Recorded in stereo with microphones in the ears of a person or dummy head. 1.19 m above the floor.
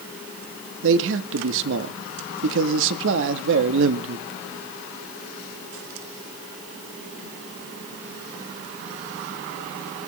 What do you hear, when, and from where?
0.8 s a man speaking: 75° right (ahead or behind), 1.6 m